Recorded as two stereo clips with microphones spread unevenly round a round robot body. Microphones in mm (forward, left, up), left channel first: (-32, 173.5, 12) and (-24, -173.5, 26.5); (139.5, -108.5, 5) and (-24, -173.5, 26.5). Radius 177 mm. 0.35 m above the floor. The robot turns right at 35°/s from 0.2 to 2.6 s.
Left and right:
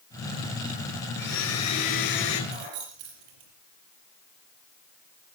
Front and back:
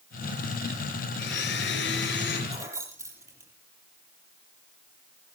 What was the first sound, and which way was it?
A blender, 30° left.